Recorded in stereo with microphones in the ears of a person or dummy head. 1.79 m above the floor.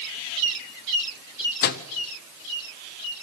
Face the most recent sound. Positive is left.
turn(degrees=50)  # may be behind; listen again after turning